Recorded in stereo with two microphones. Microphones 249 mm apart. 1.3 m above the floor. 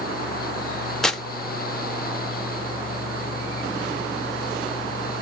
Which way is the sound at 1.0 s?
Centre (ahead or behind).